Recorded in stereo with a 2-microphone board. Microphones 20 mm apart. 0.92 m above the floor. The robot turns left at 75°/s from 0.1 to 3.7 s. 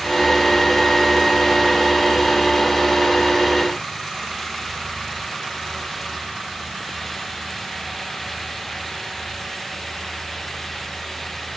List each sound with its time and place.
Only background noise.